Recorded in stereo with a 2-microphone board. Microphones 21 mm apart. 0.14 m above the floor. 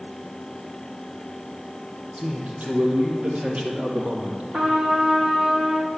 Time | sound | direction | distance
2.2 | a man speaking | 65° right (ahead or behind) | 4 m
4.5 | a trumpet | 70° right (ahead or behind) | 3 m